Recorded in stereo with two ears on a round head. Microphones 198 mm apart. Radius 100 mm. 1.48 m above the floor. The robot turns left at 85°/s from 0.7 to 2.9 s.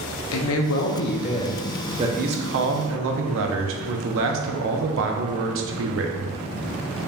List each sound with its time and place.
0.3 s a man speaking: 85° left, 0.6 m; by 6.3 s 105° right, 0.6 m